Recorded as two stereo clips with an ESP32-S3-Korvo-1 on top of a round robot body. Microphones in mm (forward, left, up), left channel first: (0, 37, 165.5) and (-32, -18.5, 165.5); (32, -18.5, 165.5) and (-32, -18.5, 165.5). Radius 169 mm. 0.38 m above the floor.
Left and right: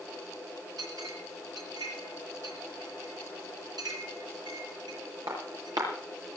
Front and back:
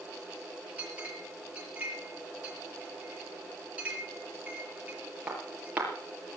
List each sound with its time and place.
0.8 s a clink: 110° right, 6.5 m